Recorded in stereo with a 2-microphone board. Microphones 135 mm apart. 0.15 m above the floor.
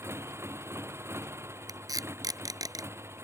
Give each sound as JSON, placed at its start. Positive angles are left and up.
{"t": 0.0, "sound": "a motorcycle", "side_deg": -20}
{"t": 1.7, "sound": "tape being pulled", "side_deg": -25}